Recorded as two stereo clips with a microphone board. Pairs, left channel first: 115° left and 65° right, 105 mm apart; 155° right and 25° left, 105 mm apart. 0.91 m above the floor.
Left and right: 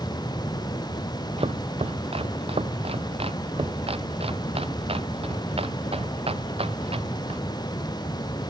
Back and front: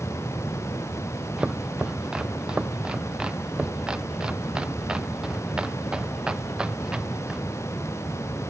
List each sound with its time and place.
1.4 s chopping: 60° right